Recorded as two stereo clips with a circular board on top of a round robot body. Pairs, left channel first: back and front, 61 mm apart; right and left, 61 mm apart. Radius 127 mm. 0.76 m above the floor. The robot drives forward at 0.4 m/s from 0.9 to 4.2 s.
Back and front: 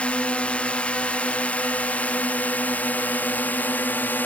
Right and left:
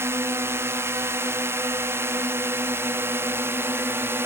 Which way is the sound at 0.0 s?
115° left.